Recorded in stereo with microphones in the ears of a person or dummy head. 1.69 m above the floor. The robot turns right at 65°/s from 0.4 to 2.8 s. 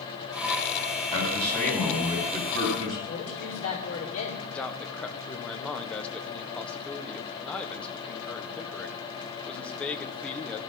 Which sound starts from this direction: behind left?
A man speaking, at 1.1 s.